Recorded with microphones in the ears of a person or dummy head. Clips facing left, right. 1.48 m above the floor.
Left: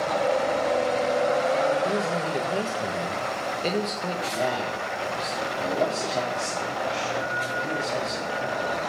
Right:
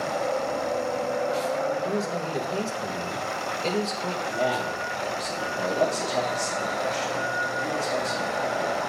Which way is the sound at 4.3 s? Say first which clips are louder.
Right 2 dB; 5° left (ahead or behind).